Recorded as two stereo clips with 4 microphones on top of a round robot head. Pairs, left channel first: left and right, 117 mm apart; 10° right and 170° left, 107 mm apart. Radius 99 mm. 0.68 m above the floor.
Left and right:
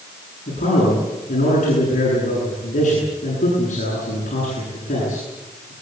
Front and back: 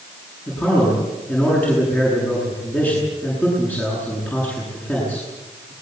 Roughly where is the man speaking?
Ahead left.